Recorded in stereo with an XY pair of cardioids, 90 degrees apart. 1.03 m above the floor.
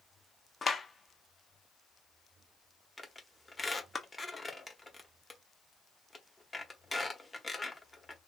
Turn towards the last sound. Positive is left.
turn(degrees=20)